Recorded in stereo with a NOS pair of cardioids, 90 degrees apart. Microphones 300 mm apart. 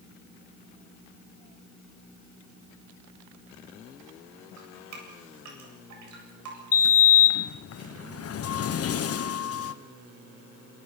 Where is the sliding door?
50° left, 1.3 m.